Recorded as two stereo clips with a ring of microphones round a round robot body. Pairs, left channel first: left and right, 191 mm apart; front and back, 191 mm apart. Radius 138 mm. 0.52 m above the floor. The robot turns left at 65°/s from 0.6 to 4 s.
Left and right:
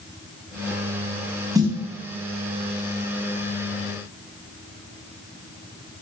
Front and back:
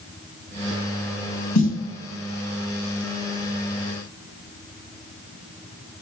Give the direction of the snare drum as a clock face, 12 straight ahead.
1 o'clock.